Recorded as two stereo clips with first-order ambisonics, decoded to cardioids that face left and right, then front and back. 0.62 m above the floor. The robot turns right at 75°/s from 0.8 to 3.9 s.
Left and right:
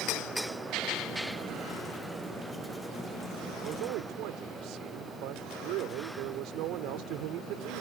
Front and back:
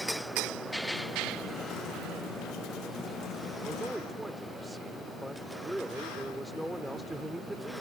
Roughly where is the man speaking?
Behind right.